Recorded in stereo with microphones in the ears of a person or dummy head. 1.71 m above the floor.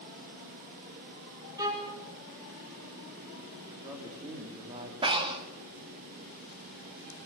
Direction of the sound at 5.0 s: 30° right (ahead or behind).